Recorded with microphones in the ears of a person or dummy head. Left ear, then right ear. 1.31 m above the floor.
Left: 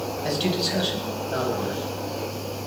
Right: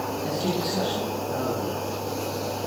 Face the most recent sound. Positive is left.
turn(degrees=60)  # may be behind; listen again after turning